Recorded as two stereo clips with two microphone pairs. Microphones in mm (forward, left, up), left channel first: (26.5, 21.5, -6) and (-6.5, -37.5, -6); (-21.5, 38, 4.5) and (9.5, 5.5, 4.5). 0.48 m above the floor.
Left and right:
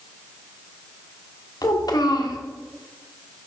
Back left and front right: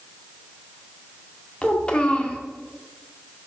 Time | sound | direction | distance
1.6 | a child speaking | 70° left | 1.3 m